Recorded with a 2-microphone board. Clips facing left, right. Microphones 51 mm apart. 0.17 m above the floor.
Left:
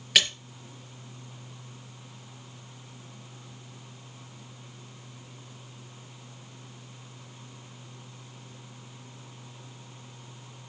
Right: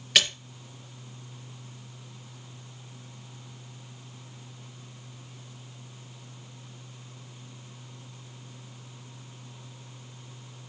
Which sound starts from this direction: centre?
A splash, at 0.1 s.